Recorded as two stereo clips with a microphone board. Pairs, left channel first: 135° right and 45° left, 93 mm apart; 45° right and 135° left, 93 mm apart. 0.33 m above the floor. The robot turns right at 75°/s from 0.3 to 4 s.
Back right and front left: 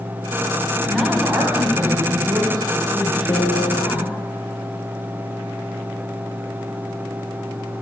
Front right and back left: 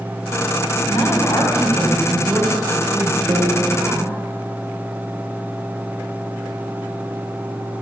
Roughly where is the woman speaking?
Ahead right.